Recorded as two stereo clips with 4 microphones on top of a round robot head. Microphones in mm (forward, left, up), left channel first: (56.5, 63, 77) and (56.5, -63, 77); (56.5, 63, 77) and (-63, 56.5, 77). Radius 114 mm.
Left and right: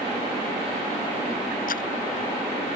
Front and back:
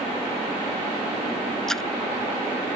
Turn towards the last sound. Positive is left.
turn(degrees=90)